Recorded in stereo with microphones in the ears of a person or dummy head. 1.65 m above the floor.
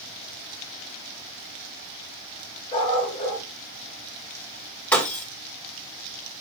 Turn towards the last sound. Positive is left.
turn(degrees=10)  # may be behind; listen again after turning